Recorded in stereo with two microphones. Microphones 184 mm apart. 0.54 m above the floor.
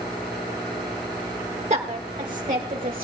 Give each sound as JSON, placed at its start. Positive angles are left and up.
{"t": 1.7, "sound": "a woman speaking", "side_deg": -40, "distance_m": 1.3}